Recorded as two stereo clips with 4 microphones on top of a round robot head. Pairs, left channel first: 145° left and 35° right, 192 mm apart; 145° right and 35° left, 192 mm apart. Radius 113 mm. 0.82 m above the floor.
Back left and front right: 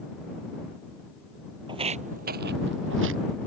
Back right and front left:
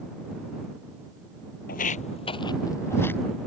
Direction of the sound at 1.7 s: 100° right.